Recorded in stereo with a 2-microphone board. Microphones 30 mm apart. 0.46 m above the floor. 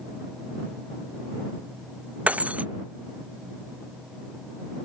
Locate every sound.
2.3 s breaking glass: 55° right (ahead or behind)